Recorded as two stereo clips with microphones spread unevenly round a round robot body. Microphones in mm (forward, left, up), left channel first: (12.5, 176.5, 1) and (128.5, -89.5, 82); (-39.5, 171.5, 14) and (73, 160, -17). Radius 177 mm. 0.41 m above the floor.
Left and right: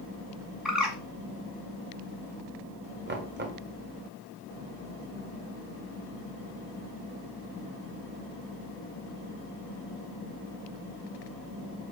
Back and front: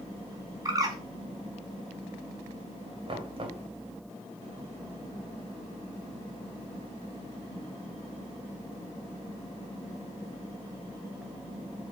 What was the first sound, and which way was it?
A bird, 30° left.